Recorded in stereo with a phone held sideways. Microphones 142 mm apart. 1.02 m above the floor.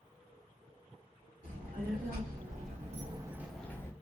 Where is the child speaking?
85° right, 1.5 m; by 3.9 s 20° left (ahead or behind), 0.8 m.